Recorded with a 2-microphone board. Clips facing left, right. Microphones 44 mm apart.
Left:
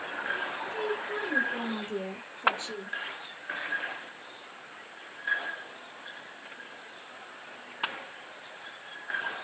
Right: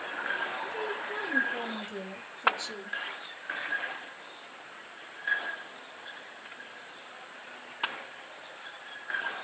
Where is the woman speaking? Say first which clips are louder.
Left 2 dB; 45° left (ahead or behind), 3 m; by 3.0 s 25° left (ahead or behind), 2.5 m.